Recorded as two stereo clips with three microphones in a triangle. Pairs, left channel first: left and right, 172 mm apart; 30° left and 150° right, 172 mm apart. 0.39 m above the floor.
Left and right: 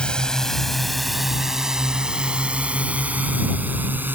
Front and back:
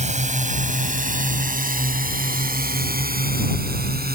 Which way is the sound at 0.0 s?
175° left.